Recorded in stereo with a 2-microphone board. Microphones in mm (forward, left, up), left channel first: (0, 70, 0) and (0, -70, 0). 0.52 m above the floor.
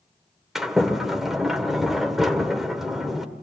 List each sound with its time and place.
0.6 s a sliding door: centre (ahead or behind), 1.9 m